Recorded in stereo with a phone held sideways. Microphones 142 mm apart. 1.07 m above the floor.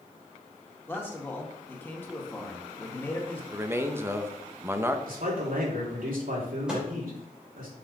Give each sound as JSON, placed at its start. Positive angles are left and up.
{"t": 0.9, "sound": "a man speaking", "side_deg": 15, "distance_m": 1.8}
{"t": 3.5, "sound": "a man speaking", "side_deg": -15, "distance_m": 0.8}
{"t": 5.1, "sound": "a man speaking", "side_deg": -75, "distance_m": 2.5}
{"t": 6.7, "sound": "a microwave", "side_deg": -5, "distance_m": 3.0}